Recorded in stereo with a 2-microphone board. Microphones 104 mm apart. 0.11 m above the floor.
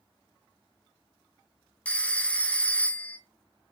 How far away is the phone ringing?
About 0.6 m.